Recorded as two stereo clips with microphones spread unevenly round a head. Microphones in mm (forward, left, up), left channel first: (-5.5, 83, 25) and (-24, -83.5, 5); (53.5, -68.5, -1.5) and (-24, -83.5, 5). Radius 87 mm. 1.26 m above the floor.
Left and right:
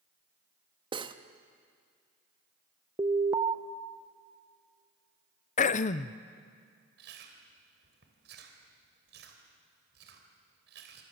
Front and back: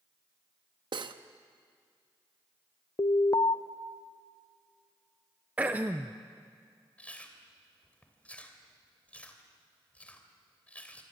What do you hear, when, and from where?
0.9 s cutlery clinking: 160° right, 1.1 m
3.0 s an alarm: 30° right, 0.9 m
5.6 s throat clearing: 115° left, 0.7 m
7.0 s chewing: 65° right, 3 m